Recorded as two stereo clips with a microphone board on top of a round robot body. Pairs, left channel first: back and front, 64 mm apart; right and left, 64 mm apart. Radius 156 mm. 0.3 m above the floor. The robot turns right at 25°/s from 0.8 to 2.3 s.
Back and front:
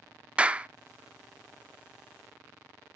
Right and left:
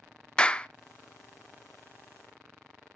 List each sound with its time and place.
0.4 s a clap: 40° right, 0.7 m